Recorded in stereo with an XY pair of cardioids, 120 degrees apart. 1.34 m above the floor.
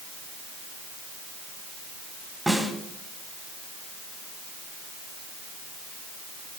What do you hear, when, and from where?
2.5 s a snare drum: 5° right, 5.5 m